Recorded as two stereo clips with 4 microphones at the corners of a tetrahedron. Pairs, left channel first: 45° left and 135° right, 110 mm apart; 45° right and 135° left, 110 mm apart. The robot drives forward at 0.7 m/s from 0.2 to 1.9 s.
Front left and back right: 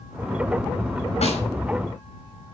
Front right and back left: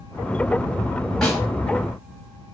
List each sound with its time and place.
1.2 s a snare drum: 40° left, 5.5 m